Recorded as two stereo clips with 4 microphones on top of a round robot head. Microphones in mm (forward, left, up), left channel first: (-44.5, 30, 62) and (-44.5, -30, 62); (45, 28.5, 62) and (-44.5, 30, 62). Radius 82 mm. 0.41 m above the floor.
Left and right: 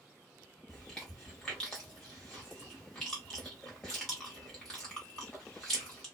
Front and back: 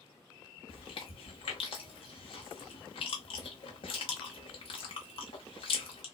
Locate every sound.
0.7 s chewing: 10° left, 0.9 m